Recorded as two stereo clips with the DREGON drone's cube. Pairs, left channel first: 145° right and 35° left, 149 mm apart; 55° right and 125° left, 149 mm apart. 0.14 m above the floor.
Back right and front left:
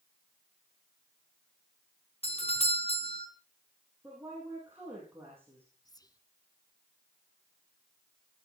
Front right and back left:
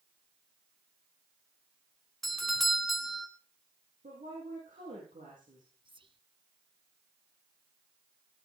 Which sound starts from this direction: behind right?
A doorbell, at 2.2 s.